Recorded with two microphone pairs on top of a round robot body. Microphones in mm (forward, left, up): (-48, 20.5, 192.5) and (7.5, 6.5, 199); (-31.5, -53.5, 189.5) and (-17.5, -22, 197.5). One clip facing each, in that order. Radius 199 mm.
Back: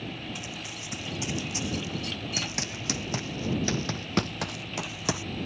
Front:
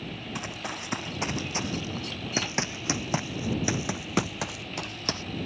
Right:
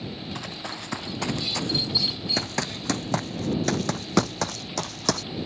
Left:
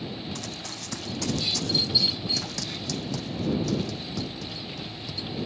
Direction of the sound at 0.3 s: 50° right.